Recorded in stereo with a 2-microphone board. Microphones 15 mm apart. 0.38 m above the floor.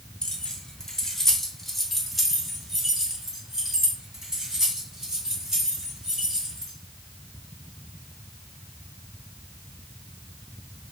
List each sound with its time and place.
0.2 s keys jangling: 55° left (ahead or behind), 1.2 m; by 6.7 s 50° right (ahead or behind), 3.5 m